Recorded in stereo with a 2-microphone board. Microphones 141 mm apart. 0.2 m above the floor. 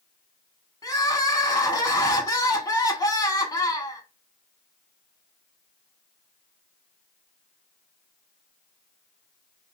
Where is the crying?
25° left (ahead or behind), 0.7 m.